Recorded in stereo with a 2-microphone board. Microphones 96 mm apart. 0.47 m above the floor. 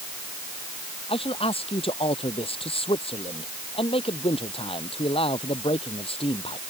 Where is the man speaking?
75° left (ahead or behind).